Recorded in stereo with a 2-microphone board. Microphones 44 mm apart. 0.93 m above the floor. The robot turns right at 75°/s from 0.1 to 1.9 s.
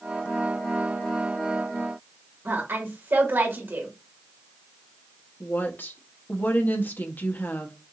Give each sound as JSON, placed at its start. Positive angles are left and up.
{"t": 2.5, "sound": "a woman speaking", "side_deg": -60, "distance_m": 2.0}
{"t": 5.4, "sound": "a woman speaking", "side_deg": 45, "distance_m": 1.1}